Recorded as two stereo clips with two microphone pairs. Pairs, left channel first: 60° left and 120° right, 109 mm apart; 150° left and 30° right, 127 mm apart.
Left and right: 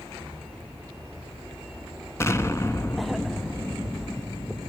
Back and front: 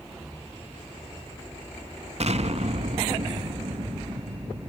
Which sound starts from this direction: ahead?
An explosion, at 2.2 s.